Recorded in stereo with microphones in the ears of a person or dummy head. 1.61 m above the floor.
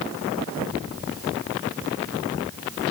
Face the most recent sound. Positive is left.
No sound to turn to.